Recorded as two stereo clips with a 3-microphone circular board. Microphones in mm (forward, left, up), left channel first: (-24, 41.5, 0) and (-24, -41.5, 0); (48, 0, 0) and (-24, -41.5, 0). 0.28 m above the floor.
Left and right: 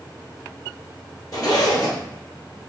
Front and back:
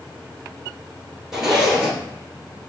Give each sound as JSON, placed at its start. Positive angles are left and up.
{"t": 1.3, "sound": "a zipper", "azimuth_deg": 125, "distance_m": 1.1}